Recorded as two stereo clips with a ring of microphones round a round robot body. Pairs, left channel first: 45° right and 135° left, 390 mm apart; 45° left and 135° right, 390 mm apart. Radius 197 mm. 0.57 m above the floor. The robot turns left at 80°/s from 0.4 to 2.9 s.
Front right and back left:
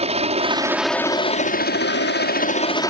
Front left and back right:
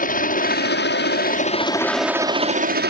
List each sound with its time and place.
0.0 s a helicopter: 80° left; by 2.9 s 120° right